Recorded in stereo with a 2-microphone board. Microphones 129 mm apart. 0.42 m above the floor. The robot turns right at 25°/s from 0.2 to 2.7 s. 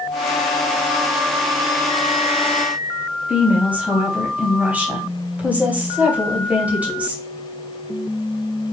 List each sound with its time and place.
3.3 s a woman speaking: 10° right (ahead or behind), 2.5 m